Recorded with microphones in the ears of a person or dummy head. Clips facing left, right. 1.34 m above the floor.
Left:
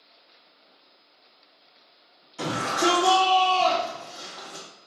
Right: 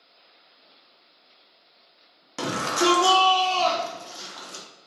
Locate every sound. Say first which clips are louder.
2.4 s a shout: right 1 dB; 75° right (ahead or behind), 1.0 m